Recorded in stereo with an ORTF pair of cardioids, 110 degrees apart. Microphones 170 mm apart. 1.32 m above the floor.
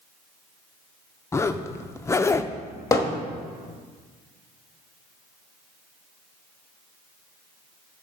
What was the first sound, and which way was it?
A zipper, 15° left.